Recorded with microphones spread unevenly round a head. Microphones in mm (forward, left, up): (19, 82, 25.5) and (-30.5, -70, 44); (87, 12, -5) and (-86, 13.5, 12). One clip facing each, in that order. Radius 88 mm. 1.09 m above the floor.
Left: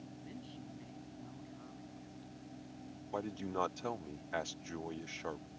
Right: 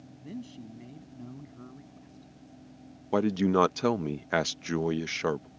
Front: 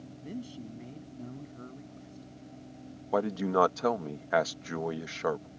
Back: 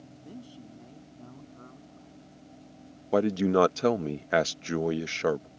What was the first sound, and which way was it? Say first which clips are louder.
A man speaking: right 12 dB, front 5 dB; 70° right.